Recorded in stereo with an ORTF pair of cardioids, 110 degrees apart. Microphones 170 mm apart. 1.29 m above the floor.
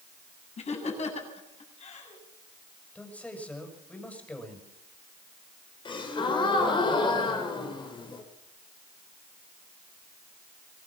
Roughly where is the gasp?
Ahead left.